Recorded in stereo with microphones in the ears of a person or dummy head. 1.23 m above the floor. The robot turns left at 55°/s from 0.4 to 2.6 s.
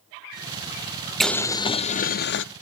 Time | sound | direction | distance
1.2 | boiling | straight behind | 0.5 m